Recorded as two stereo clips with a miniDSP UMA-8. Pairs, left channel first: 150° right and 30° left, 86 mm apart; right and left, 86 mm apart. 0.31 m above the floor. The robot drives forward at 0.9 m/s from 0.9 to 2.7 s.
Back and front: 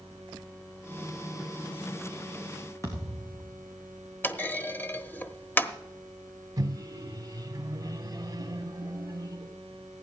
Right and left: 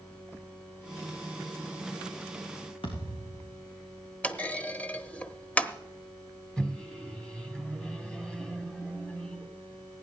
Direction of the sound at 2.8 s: 95° right.